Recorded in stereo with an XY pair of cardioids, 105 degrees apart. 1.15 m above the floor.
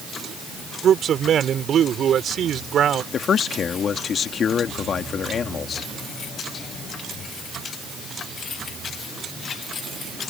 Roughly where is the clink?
I don't hear a clink.